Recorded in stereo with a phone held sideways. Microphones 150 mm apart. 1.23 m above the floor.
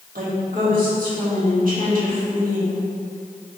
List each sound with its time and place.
0.1 s a woman speaking: 70° right (ahead or behind), 2 m